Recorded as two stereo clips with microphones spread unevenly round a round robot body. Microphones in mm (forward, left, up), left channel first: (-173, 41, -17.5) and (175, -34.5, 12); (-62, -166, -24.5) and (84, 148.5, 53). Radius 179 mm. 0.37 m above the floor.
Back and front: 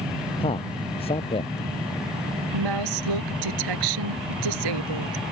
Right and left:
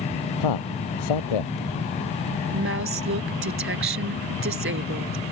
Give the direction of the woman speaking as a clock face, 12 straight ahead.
12 o'clock.